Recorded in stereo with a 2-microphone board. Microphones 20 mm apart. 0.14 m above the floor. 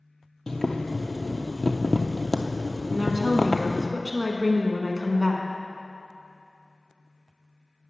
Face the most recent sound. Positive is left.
turn(degrees=-10)  # may be behind; listen again after turning